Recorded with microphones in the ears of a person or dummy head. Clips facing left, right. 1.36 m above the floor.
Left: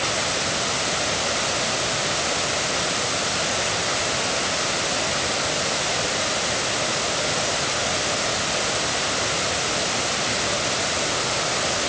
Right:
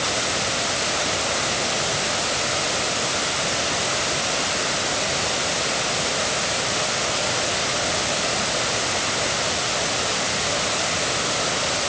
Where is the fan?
No fan in this recording.